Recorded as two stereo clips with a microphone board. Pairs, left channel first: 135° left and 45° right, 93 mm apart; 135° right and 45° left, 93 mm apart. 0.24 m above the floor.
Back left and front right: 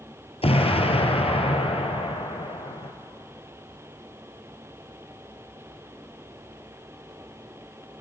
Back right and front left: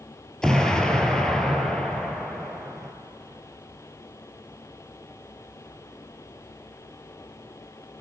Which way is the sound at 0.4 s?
140° left.